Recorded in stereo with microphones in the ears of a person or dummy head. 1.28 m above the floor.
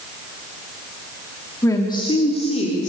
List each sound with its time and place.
1.6 s a woman speaking: 20° left (ahead or behind), 2 m; by 2.9 s 40° left (ahead or behind), 3.5 m